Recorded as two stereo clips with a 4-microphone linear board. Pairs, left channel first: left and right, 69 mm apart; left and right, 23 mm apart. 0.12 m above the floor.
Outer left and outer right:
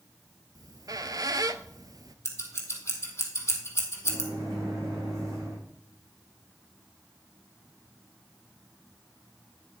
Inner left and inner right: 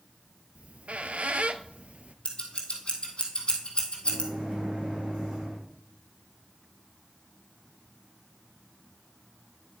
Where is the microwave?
50° right (ahead or behind), 6.5 m.